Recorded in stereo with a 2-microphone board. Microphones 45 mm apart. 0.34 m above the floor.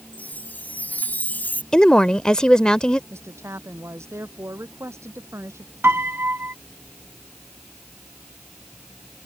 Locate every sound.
0.1 s a chime: 40° left (ahead or behind)
1.7 s a woman speaking: 15° left (ahead or behind)
3.1 s a woman speaking: 80° right
5.8 s a piano: 50° right (ahead or behind)